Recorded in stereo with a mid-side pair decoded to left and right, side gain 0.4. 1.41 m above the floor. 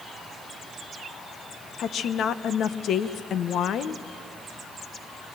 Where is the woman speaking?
70° left, 1.0 m.